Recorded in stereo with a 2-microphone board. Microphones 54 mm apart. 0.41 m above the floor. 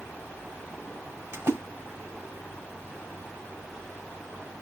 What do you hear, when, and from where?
1.3 s a splash: 50° right (ahead or behind), 1.6 m